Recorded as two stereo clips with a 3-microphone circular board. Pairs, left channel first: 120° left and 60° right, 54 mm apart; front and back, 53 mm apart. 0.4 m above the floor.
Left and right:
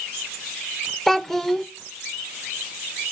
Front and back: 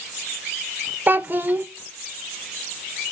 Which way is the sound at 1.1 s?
160° right.